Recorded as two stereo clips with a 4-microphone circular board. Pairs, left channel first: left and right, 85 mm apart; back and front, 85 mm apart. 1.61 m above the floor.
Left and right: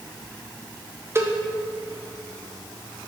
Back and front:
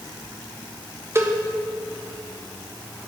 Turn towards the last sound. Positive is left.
turn(degrees=-45)